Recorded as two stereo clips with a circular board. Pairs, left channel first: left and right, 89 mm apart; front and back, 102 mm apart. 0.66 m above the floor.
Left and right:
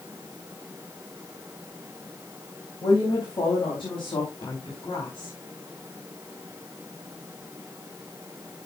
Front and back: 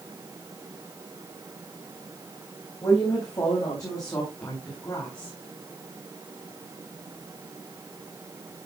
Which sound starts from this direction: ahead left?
A woman speaking, at 2.8 s.